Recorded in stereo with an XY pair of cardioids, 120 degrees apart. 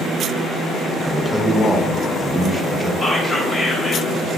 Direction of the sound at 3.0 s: 20° left.